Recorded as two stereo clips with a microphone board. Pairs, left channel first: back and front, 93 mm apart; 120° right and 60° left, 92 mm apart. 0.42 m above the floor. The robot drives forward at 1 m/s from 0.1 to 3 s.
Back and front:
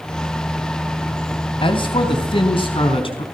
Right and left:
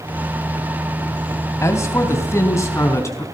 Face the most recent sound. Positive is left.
turn(degrees=180)